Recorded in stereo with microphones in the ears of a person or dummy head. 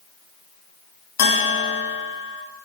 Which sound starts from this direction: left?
A bell, at 1.2 s.